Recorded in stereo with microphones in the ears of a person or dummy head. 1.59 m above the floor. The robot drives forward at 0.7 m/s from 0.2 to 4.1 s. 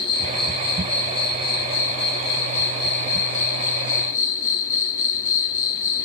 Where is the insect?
25° left (ahead or behind), 6 m; by 6.0 s 40° left (ahead or behind), 3.5 m.